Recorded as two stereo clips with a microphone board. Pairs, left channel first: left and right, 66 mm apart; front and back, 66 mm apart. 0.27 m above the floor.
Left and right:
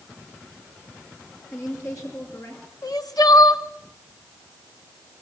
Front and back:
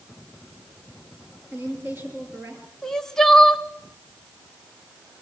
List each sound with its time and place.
1.5 s a woman speaking: 125° left, 5.5 m
2.8 s crying: 85° left, 0.8 m